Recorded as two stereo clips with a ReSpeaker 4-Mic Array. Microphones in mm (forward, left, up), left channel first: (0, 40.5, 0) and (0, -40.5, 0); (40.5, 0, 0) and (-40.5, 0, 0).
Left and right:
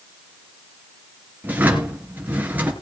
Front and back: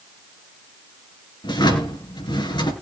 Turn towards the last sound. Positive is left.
turn(degrees=-20)